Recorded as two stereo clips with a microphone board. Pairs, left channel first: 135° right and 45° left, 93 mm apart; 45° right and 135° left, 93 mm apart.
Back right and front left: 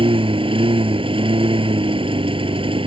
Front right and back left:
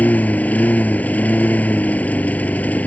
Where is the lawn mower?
30° left.